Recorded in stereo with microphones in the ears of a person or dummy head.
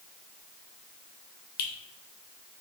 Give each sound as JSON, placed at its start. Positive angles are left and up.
{"t": 1.6, "sound": "a finger snap", "side_deg": 55, "distance_m": 0.9}